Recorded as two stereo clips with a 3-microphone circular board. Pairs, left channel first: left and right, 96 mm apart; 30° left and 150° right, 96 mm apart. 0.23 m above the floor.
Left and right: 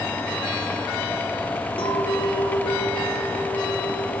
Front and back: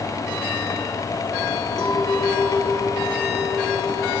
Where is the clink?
115° left, 5 m.